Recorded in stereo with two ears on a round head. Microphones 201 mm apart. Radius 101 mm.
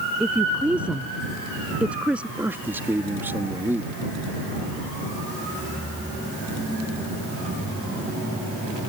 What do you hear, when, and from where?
0.2 s a woman speaking: 5° right (ahead or behind)
2.4 s a man speaking: 10° right (ahead or behind)